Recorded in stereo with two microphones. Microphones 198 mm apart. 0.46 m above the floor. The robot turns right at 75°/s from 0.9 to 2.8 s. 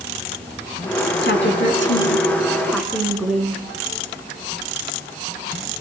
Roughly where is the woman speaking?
Ahead left.